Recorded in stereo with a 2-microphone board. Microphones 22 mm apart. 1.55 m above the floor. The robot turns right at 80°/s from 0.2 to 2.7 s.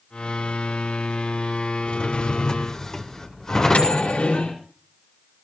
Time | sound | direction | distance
1.9 | a drawer | 80° left | 1.9 m
3.5 | a microwave | 75° left (ahead or behind) | 5.5 m